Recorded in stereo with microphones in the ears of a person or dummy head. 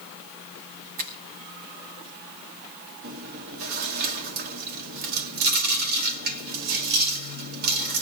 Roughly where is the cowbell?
No cowbell in this recording.